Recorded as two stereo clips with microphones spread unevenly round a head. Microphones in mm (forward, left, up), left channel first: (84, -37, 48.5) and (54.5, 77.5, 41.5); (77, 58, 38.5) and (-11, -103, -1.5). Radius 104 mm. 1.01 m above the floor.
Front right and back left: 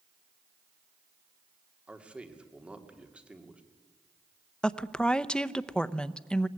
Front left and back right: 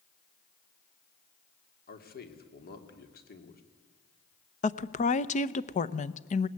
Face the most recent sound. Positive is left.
turn(degrees=10)